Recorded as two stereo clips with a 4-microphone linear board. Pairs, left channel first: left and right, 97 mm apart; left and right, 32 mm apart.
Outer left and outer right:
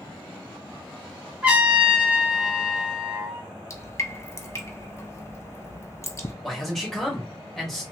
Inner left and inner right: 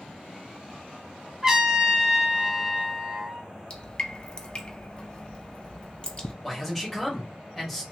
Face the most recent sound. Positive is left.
turn(degrees=5)  # may be behind; listen again after turning